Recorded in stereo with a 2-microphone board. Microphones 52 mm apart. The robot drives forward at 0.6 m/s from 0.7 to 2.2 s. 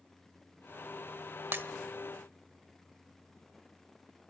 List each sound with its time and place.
1.5 s breaking glass: 45° right (ahead or behind), 0.7 m; by 1.6 s 40° right (ahead or behind), 0.7 m